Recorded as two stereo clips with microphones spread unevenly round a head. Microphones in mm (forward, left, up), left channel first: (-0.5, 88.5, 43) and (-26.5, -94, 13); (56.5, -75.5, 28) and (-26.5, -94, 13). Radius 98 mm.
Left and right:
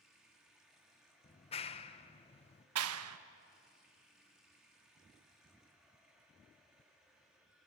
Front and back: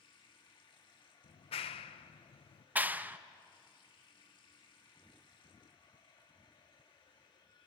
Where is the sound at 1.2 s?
20° left, 0.7 m.